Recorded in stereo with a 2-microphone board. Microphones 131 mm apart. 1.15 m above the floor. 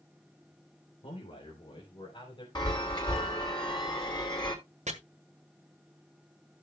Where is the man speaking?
45° left (ahead or behind), 2.5 m; by 2.5 s 35° left (ahead or behind), 4.5 m.